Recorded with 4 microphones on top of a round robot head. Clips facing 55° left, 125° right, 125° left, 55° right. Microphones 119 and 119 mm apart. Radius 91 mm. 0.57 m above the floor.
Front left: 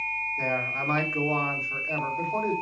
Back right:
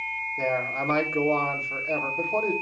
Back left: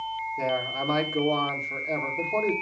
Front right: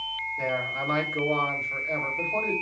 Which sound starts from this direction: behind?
A man speaking, at 0.4 s.